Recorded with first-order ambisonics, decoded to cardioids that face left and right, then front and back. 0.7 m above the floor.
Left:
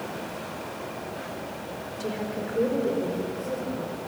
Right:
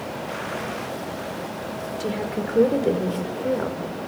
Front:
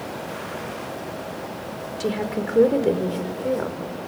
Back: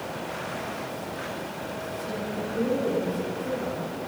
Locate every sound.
2.0 s a woman speaking: 20° right, 2.5 m; by 3.8 s 50° right, 3 m